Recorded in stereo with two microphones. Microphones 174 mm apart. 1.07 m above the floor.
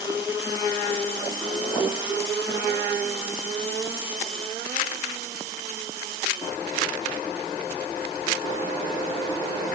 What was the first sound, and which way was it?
Only background noise.